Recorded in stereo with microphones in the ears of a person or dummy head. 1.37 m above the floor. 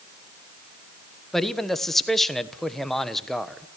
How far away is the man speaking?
About 1.2 m.